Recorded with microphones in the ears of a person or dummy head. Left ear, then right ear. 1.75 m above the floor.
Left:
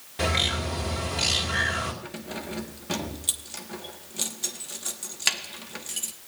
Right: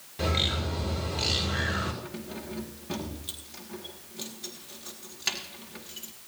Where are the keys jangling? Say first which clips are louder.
Left 3 dB; 15° left (ahead or behind), 1.0 m.